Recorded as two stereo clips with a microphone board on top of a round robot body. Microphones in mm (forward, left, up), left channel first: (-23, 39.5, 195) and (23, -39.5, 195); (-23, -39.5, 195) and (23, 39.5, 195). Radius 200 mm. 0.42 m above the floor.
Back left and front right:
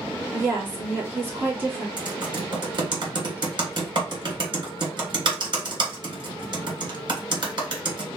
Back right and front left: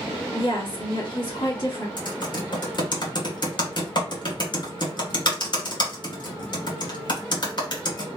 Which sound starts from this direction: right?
Typing on a keyboard, at 2.0 s.